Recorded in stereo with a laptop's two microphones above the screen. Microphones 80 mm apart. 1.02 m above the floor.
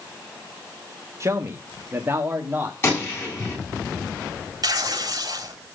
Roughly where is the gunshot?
Left.